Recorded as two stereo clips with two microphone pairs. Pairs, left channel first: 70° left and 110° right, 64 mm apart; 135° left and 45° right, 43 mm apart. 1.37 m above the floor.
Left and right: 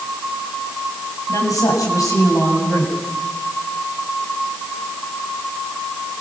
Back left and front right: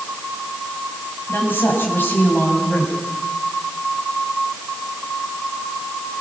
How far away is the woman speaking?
About 7.5 m.